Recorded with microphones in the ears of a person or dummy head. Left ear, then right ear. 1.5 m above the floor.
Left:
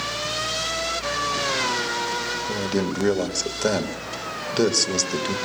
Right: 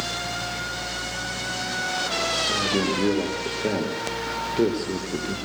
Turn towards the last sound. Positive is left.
turn(degrees=40)  # may be behind; listen again after turning